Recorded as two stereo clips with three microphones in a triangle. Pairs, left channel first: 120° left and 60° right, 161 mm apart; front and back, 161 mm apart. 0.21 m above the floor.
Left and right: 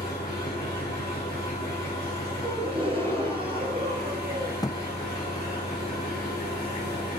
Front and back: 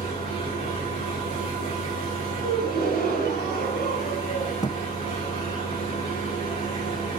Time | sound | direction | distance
0.0 | an engine running | 50° left | 7 m
2.4 | a gasp | 5° right | 4.5 m
4.6 | a thud | 55° left | 0.7 m